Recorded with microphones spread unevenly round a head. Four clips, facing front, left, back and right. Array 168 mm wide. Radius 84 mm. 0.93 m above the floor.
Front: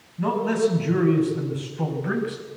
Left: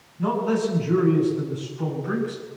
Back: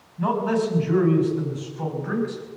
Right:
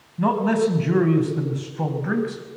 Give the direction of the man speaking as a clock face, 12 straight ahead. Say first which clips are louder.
Right 3 dB, front 1 dB; 3 o'clock.